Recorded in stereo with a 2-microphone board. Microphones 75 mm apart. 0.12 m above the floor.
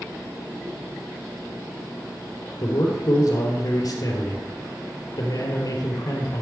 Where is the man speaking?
55° left (ahead or behind), 2.5 m.